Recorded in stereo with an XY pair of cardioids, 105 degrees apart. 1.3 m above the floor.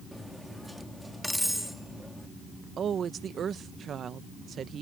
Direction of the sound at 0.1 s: Straight ahead.